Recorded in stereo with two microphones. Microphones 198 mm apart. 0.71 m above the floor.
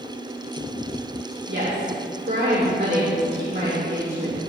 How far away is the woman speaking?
About 1.9 m.